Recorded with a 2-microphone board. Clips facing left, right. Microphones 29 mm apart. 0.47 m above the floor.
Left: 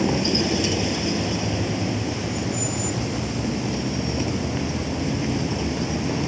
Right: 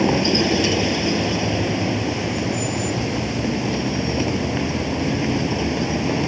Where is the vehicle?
20° right (ahead or behind).